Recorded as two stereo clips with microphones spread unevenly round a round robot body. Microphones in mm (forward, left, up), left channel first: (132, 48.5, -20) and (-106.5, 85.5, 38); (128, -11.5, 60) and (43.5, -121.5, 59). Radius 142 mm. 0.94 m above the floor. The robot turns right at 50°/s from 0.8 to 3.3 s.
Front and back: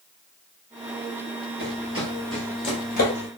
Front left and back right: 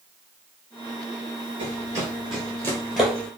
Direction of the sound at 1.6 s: 165° right.